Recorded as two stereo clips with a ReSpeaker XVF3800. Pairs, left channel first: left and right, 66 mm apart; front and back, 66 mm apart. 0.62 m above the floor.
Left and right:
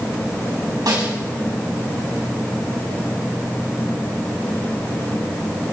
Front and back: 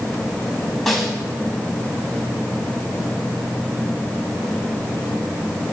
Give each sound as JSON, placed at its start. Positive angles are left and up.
{"t": 0.9, "sound": "a snare drum", "azimuth_deg": -90, "distance_m": 2.5}